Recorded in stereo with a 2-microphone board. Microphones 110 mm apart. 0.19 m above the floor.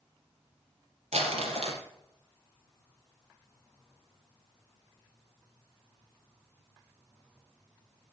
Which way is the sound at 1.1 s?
80° right.